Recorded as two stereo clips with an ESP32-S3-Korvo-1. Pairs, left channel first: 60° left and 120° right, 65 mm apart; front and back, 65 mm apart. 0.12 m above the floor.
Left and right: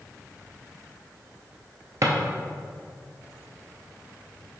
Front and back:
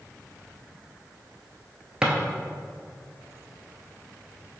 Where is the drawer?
105° right, 0.7 m.